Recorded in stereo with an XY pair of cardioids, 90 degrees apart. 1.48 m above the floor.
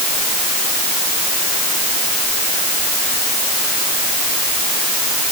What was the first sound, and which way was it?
Only background noise.